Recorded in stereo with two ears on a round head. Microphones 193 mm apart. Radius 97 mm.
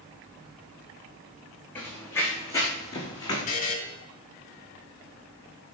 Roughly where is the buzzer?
Left.